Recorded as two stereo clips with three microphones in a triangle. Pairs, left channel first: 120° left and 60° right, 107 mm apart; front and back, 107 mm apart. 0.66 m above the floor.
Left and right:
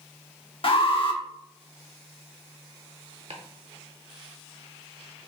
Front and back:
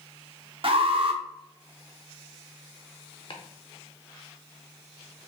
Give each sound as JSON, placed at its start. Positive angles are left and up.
{"t": 0.6, "sound": "an alarm", "azimuth_deg": 150, "distance_m": 0.7}
{"t": 3.3, "sound": "chopping", "azimuth_deg": -40, "distance_m": 0.8}